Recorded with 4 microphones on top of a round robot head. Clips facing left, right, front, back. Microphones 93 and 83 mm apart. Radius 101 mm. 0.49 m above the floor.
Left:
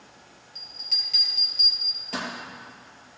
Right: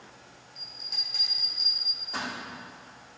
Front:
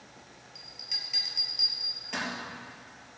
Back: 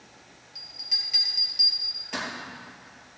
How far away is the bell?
About 3 m.